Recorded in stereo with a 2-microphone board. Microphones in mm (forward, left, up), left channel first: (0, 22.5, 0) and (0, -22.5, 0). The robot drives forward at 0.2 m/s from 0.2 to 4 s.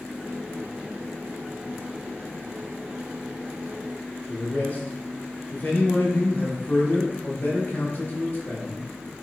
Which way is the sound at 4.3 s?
40° left (ahead or behind).